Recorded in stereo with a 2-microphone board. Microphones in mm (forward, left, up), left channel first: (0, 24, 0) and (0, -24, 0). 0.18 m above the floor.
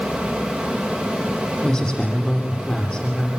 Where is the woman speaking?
20° left (ahead or behind), 8 m.